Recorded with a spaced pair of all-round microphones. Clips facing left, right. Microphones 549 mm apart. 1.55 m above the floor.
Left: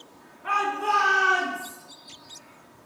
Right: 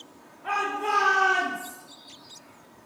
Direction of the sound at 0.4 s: 30° left (ahead or behind).